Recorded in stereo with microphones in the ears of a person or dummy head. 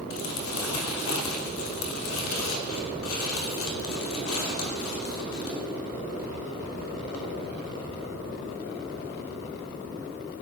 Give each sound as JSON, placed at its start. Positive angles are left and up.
{"t": 0.1, "sound": "crumpling", "side_deg": 85, "distance_m": 3.0}